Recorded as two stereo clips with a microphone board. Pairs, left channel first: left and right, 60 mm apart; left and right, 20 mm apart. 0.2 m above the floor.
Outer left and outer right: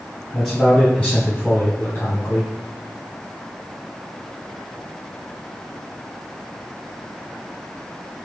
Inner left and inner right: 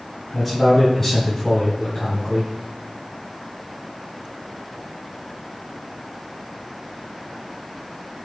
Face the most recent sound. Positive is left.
turn(degrees=40)  # may be behind; listen again after turning